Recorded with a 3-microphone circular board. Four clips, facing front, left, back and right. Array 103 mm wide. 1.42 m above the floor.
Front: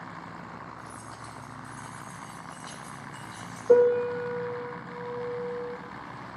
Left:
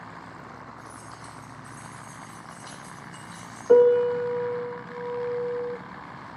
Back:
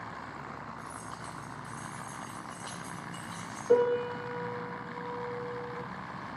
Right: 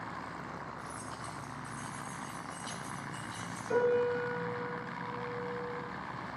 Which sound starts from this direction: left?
A piano, at 3.7 s.